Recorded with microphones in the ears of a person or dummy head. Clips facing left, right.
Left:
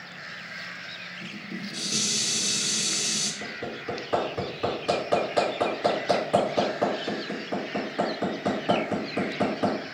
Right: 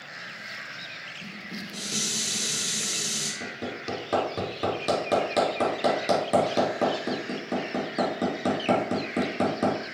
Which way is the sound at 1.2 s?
10° right (ahead or behind).